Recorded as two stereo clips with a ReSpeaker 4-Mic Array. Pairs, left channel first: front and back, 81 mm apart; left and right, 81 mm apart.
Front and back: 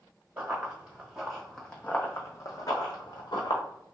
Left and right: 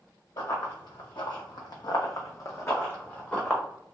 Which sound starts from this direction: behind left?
Running footsteps, at 0.4 s.